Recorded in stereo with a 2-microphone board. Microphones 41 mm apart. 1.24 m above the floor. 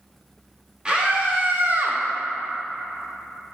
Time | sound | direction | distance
0.8 | a scream | 20° right (ahead or behind) | 1.8 m